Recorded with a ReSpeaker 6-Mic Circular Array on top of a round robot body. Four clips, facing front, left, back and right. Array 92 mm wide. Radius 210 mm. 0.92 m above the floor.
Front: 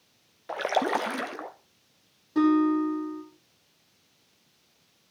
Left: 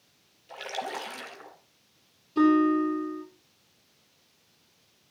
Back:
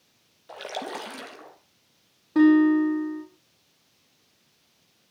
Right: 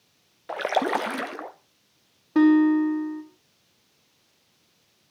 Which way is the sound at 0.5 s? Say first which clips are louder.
Right 11 dB, front 8 dB; 55° right.